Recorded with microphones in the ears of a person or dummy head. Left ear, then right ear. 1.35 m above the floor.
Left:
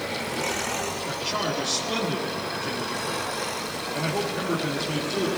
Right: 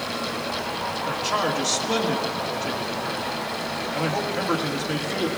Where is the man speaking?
50° right (ahead or behind), 1.8 m.